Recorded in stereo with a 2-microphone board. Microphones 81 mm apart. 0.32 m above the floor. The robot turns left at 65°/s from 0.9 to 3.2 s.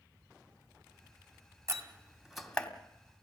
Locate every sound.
1.7 s a door slam: 40° right (ahead or behind), 1.6 m; by 2.7 s 15° left (ahead or behind), 1.6 m